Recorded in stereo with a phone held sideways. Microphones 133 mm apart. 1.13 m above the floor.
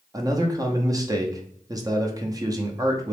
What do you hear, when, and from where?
0.1 s a man speaking: 25° right (ahead or behind), 0.6 m